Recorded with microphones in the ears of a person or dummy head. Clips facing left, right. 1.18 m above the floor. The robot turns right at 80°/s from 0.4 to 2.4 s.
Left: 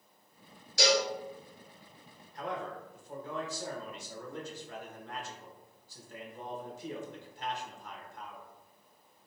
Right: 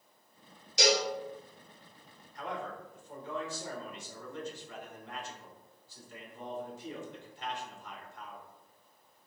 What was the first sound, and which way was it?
A cowbell, 20° right (ahead or behind).